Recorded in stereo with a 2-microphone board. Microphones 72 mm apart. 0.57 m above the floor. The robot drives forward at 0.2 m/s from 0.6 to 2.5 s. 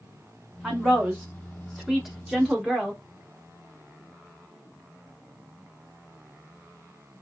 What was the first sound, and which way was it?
A woman speaking, 5° right (ahead or behind).